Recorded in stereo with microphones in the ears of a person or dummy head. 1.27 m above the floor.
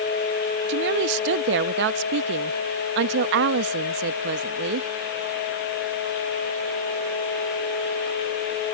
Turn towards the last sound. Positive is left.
turn(degrees=-65)  # may be behind; listen again after turning